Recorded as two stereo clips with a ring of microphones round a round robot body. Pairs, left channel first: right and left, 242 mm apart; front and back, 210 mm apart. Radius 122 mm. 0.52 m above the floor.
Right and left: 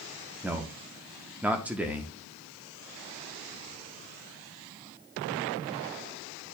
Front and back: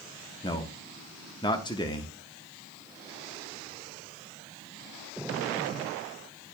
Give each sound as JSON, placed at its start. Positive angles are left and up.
{"t": 0.4, "sound": "a man speaking", "azimuth_deg": 15, "distance_m": 0.7}